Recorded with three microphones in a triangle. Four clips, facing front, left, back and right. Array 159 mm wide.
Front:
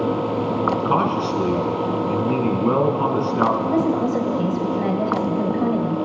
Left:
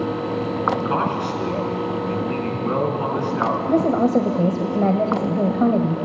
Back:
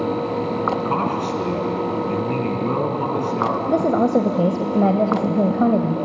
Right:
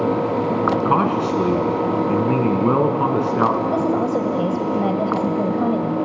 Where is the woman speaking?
160° left, 1.6 m.